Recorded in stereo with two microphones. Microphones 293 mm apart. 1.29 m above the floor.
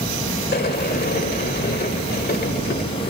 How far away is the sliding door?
About 1.5 m.